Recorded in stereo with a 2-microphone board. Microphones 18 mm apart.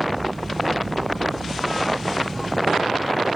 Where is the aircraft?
60° right (ahead or behind); by 3.4 s 65° right (ahead or behind).